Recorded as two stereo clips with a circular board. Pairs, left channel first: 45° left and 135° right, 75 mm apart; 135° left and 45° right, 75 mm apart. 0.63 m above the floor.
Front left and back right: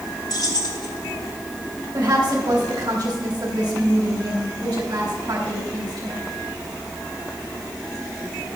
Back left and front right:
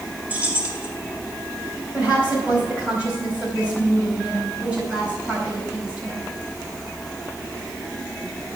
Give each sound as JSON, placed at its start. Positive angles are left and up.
{"t": 0.3, "sound": "keys jangling", "azimuth_deg": 25, "distance_m": 1.8}
{"t": 1.9, "sound": "a woman speaking", "azimuth_deg": -120, "distance_m": 4.0}